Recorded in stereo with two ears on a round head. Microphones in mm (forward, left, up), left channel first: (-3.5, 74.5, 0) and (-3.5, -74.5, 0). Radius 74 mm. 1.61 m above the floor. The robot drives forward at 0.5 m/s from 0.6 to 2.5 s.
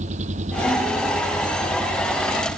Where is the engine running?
45° right (ahead or behind).